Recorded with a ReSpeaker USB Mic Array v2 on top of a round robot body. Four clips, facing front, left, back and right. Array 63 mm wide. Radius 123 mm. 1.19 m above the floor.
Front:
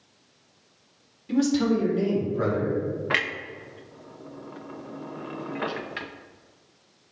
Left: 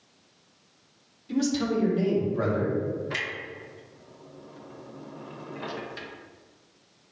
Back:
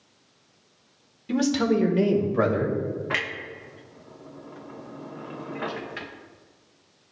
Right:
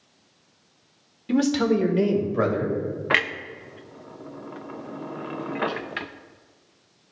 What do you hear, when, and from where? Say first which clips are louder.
1.3 s a man speaking: right 5 dB, even; 105° right, 1.4 m; by 2.8 s 150° right, 2.5 m
3.1 s a clunk: right 9 dB, front 2 dB; 80° right, 0.5 m